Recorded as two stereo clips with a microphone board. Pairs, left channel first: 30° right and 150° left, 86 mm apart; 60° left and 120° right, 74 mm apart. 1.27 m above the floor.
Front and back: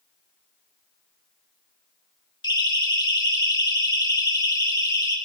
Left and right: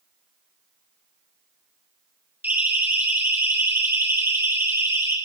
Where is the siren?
55° right, 4 m; by 5.2 s 70° right, 5 m.